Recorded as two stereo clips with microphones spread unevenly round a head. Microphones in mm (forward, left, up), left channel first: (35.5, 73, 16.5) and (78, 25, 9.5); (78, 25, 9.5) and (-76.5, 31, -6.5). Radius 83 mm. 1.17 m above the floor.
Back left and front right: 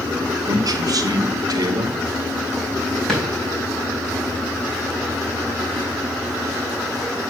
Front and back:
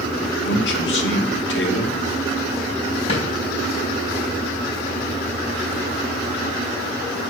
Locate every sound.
0.5 s a man speaking: 30° right, 1.5 m
3.1 s a drawer: 50° left, 4 m